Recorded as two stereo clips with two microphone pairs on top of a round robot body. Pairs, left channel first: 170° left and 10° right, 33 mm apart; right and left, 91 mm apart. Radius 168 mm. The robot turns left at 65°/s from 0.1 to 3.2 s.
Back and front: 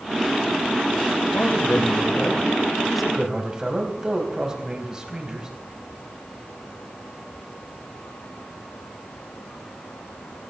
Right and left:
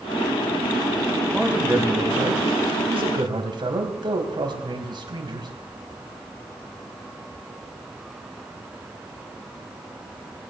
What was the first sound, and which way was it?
A man speaking, straight behind.